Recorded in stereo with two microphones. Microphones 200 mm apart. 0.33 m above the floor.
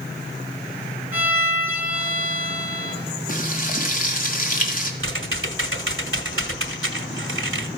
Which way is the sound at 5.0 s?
85° right.